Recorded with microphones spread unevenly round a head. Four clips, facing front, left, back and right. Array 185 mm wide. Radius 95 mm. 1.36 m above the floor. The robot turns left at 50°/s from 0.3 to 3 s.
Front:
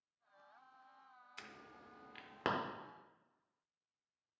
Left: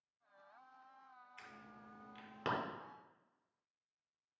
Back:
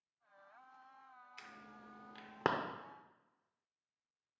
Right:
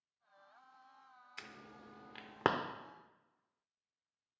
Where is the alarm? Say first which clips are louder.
Right 4 dB, front 1 dB; 65° right, 0.7 m; by 2.5 s 120° right, 0.7 m.